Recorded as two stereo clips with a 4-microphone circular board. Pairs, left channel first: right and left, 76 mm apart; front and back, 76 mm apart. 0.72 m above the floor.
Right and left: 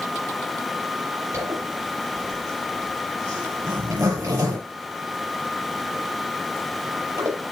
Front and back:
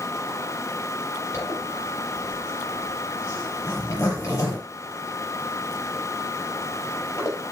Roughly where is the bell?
I don't hear a bell.